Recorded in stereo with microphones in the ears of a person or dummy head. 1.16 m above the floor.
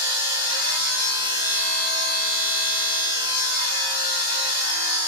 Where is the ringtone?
No ringtone in this recording.